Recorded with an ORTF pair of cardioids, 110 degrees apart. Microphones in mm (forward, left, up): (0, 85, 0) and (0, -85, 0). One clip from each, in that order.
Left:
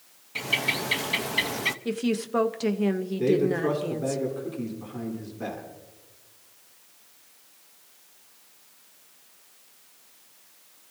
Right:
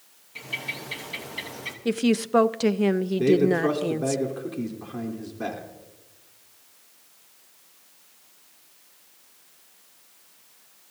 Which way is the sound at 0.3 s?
45° left.